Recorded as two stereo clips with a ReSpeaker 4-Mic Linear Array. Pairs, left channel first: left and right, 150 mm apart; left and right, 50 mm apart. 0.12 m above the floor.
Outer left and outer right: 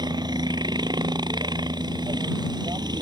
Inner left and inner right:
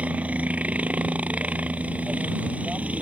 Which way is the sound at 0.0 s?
25° right (ahead or behind).